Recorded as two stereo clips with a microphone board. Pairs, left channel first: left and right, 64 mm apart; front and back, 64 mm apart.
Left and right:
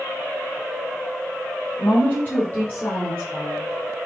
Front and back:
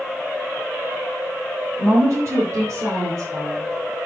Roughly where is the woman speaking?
Behind left.